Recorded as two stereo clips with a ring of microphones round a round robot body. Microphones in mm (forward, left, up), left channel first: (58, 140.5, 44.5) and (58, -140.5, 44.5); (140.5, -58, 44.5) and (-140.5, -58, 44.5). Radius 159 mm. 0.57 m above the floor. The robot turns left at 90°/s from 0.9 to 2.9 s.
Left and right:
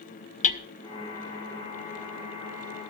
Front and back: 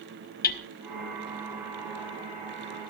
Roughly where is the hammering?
Ahead left.